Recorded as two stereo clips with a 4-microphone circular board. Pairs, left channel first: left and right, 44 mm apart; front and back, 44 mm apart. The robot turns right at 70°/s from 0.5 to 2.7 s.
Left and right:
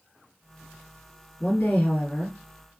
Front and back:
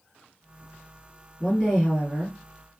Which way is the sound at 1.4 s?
70° left.